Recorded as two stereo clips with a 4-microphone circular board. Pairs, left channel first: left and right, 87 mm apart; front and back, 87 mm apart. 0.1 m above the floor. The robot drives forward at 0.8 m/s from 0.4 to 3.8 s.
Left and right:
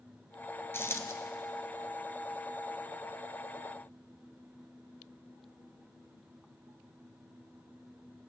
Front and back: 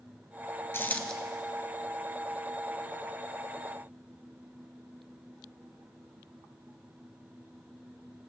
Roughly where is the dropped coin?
Ahead left.